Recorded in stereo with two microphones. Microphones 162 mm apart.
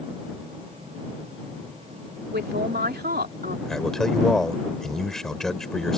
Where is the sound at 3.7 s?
5° left (ahead or behind).